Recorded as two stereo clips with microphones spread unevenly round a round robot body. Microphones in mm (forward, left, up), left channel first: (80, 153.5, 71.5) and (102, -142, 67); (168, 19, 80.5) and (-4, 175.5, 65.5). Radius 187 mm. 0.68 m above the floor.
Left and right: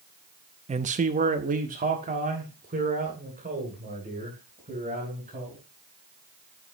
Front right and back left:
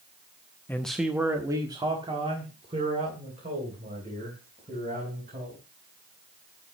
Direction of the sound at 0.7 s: 120° right.